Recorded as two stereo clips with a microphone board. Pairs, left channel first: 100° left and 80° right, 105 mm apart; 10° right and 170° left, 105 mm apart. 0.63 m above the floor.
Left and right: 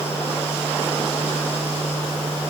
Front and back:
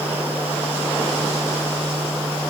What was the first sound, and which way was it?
Only background noise.